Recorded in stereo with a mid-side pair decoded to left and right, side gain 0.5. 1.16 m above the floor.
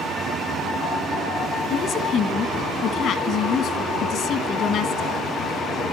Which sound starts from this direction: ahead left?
A woman speaking, at 1.7 s.